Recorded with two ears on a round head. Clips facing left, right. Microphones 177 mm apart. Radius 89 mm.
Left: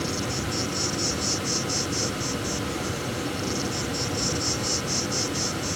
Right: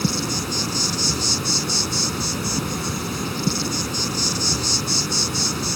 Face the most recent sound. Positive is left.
turn(degrees=-65)  # may be behind; listen again after turning